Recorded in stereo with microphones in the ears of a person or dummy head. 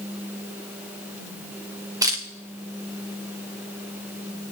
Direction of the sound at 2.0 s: 20° right (ahead or behind).